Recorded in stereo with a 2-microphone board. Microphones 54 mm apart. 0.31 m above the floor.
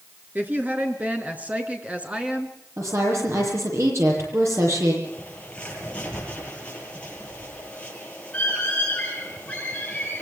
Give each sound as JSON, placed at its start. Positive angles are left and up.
{"t": 0.3, "sound": "a woman speaking", "side_deg": -35, "distance_m": 4.5}
{"t": 2.8, "sound": "a woman speaking", "side_deg": -60, "distance_m": 9.0}
{"t": 5.0, "sound": "a bird", "side_deg": 20, "distance_m": 9.5}